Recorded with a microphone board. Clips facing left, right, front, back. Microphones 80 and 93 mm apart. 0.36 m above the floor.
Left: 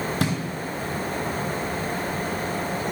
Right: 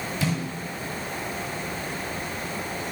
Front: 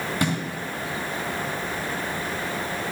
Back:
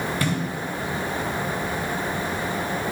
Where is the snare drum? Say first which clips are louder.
Left 1 dB, front 2 dB; 70° left, 3 m.